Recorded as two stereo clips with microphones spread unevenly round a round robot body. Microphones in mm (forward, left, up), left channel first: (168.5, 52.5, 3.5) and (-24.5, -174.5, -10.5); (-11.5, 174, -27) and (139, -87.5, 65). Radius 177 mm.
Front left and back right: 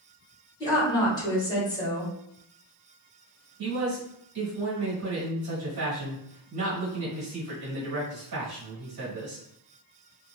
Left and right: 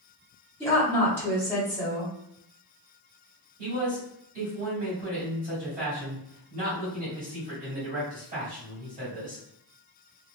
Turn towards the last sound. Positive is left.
turn(degrees=-135)